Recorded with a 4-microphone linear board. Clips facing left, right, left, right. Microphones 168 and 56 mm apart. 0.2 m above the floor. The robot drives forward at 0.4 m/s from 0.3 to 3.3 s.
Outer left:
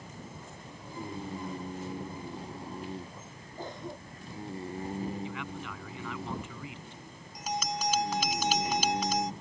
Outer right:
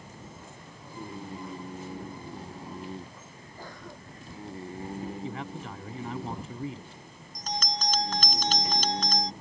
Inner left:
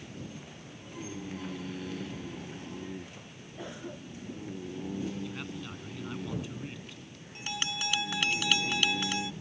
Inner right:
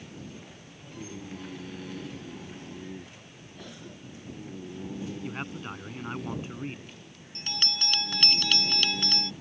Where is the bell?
10° left (ahead or behind).